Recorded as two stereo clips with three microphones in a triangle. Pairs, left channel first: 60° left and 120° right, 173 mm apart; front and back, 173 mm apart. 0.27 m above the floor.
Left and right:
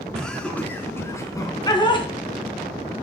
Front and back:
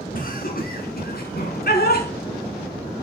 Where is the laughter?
25° right, 3.5 m; by 2.1 s 5° left, 3 m.